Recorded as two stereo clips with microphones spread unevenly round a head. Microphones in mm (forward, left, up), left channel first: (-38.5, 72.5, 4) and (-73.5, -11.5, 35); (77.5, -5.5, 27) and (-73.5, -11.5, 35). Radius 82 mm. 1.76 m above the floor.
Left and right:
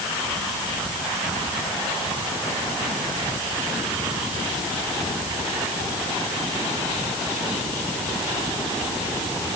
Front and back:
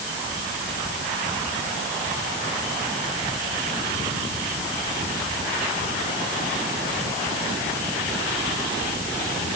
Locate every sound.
Only background noise.